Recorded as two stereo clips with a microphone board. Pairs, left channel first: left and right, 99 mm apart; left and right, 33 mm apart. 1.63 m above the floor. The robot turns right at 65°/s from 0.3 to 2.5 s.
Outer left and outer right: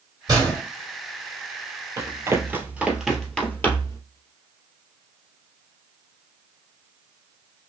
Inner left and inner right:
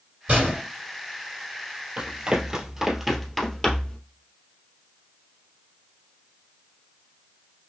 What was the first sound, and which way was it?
A gunshot, 45° right (ahead or behind).